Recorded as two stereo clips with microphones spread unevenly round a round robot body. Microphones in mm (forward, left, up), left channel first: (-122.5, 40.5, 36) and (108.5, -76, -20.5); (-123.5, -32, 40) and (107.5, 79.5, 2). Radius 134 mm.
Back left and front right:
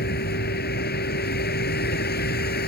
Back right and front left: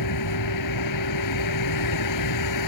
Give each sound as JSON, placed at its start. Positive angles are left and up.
{"t": 0.0, "sound": "a vehicle", "azimuth_deg": -155}